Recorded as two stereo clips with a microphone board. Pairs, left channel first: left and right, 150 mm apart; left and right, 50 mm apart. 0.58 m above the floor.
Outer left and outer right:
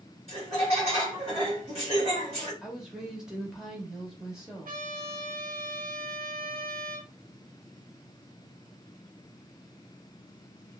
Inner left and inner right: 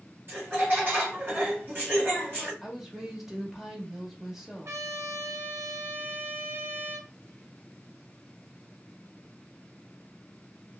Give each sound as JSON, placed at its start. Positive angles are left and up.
{"t": 0.3, "sound": "laughter", "side_deg": -45, "distance_m": 2.0}
{"t": 2.6, "sound": "a woman speaking", "side_deg": -5, "distance_m": 0.8}
{"t": 4.7, "sound": "a trumpet", "side_deg": -75, "distance_m": 0.6}